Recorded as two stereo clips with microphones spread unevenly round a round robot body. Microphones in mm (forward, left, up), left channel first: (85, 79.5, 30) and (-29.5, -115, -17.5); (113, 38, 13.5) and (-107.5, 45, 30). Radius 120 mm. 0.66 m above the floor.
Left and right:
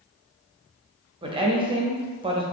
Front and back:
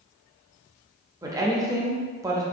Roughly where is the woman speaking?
Right.